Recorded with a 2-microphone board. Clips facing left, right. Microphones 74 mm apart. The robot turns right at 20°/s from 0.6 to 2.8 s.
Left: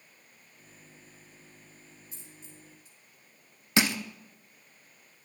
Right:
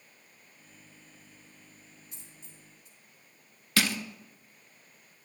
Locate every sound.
2.1 s a dropped coin: 60° right (ahead or behind), 3 m; by 3.0 s 45° right (ahead or behind), 3 m
3.8 s crushing: 20° left (ahead or behind), 0.8 m